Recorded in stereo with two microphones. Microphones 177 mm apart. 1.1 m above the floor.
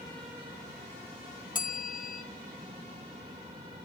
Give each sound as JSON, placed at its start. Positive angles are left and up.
{"t": 1.6, "sound": "a bell", "side_deg": 50, "distance_m": 0.8}